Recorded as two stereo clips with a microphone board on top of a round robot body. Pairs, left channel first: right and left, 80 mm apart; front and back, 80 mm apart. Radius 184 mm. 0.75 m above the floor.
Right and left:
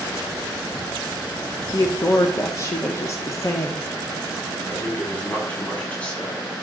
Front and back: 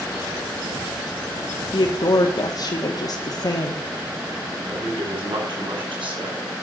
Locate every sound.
1.7 s a woman speaking: 40° right, 2 m
4.7 s a man speaking: 165° right, 8 m